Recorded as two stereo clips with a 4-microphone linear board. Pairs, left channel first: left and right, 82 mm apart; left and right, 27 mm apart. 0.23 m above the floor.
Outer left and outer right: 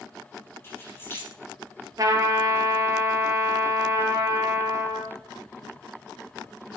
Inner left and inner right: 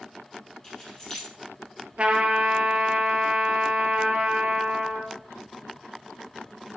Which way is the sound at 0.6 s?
30° left (ahead or behind).